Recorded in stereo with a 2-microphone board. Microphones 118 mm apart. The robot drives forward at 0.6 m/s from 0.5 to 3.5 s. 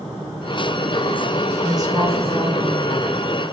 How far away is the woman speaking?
About 1.2 m.